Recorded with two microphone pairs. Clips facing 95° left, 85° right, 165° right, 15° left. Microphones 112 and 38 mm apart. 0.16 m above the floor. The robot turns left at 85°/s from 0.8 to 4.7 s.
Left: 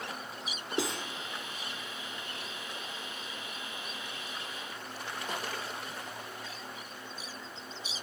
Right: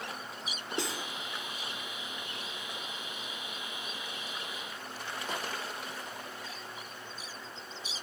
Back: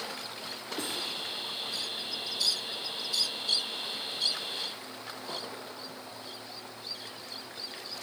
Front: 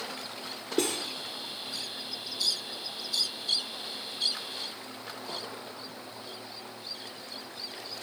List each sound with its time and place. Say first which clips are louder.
0.8 s cutlery clinking: left 3 dB, front 7 dB; 10° left, 2 m; by 1.1 s 15° right, 2 m